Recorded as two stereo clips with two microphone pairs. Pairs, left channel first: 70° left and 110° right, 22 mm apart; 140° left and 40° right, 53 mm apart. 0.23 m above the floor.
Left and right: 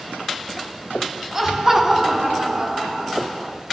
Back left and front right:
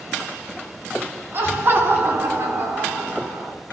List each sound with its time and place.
1.3 s laughter: 55° right, 2.5 m; by 3.5 s 60° right, 3.5 m